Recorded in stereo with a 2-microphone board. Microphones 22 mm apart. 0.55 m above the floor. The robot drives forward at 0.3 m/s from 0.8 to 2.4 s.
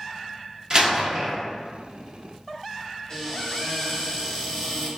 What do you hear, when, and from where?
0.7 s a door slam: 35° right (ahead or behind), 0.6 m
3.1 s a cupboard door: 20° left (ahead or behind), 1.0 m